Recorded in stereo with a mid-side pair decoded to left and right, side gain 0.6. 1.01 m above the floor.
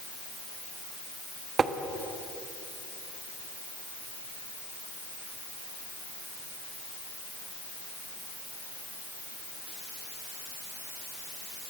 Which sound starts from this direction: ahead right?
Tapping, at 1.6 s.